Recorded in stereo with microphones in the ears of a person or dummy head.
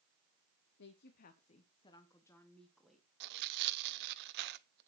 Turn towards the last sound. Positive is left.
turn(degrees=-60)  # may be behind; listen again after turning